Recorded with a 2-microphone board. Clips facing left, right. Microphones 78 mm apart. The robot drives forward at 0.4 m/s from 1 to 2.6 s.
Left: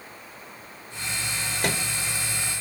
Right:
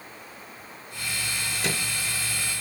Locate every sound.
1.6 s a microwave: 50° left (ahead or behind), 1.0 m